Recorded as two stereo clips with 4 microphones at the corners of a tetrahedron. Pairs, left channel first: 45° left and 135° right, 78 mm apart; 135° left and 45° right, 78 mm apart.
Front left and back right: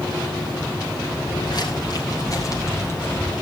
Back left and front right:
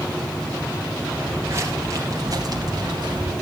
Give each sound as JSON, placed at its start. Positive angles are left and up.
{"t": 1.2, "sound": "footsteps", "azimuth_deg": 15, "distance_m": 5.0}